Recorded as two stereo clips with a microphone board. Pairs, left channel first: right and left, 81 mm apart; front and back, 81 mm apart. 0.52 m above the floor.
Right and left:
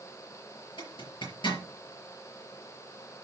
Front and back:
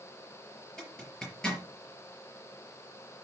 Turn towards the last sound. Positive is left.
turn(degrees=-80)